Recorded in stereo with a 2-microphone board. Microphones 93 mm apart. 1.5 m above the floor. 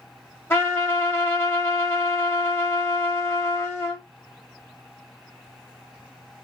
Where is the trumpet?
25° left (ahead or behind), 1.0 m.